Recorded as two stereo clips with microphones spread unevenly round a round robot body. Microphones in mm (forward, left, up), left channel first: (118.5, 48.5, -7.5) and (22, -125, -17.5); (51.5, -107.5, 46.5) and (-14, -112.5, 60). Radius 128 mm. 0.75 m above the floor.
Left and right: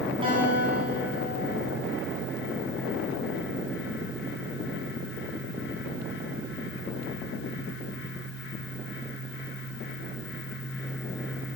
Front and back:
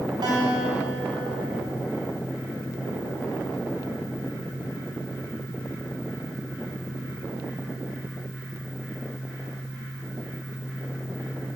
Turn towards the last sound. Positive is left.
turn(degrees=170)